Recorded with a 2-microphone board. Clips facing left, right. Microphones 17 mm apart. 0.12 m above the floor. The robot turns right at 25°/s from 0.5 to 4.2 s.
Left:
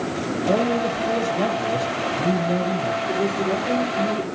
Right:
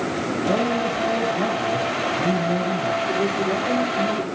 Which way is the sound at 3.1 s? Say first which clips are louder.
Even; 5° left (ahead or behind).